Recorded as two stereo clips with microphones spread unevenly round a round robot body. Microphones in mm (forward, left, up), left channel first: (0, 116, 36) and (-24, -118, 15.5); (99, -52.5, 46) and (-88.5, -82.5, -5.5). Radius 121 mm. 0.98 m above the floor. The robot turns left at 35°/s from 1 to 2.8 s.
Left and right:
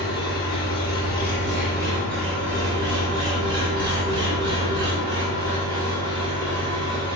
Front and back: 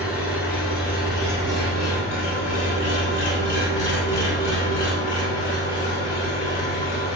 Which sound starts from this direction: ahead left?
An engine running, at 0.0 s.